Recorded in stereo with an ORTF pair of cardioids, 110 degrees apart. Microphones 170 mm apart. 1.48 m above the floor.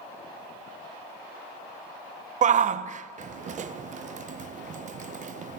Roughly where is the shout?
Ahead right.